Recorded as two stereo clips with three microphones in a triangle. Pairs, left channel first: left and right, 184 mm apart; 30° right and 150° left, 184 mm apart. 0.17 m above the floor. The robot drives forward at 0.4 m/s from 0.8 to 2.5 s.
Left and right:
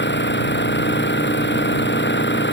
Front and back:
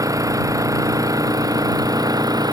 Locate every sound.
0.0 s an engine running: 80° left